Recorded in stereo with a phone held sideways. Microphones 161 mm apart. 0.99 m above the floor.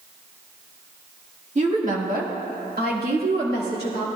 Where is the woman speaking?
45° right (ahead or behind), 1.8 m; by 4.1 s 80° right, 3 m.